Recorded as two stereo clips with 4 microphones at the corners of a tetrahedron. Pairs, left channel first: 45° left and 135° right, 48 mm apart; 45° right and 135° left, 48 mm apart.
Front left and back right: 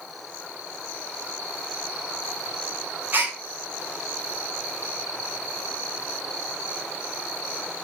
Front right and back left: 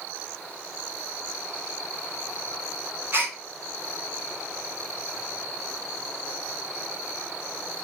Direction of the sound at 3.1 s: Straight behind.